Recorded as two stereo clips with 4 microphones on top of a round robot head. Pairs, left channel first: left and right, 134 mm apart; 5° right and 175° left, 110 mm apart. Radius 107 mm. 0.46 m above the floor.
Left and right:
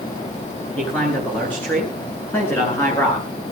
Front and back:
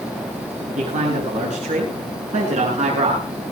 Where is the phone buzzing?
No phone buzzing in this recording.